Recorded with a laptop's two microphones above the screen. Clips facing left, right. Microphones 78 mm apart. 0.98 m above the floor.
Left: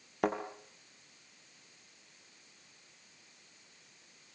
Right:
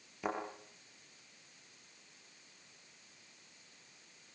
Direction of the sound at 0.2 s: 70° left (ahead or behind).